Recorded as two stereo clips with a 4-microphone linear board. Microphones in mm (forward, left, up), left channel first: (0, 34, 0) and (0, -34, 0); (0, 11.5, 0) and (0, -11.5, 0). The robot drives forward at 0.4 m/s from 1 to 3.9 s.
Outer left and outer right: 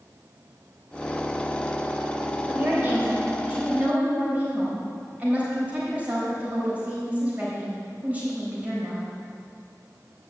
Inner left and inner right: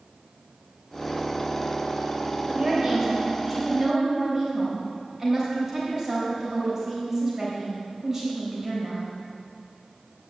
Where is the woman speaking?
25° right (ahead or behind), 3 m; by 9.2 s 20° right (ahead or behind), 3.5 m.